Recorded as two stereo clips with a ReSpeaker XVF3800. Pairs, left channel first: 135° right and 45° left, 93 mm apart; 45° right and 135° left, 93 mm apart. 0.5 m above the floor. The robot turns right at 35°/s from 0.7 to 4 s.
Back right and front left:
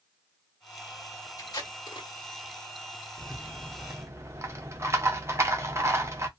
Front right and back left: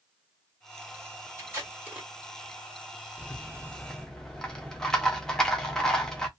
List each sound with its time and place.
1.4 s tape being pulled: 175° right, 1.3 m; by 2.1 s 150° right, 1.3 m
3.2 s a rattle: 5° left, 0.7 m; by 6.3 s 35° left, 0.7 m